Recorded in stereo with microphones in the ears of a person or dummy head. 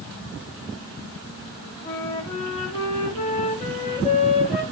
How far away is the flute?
About 1.5 m.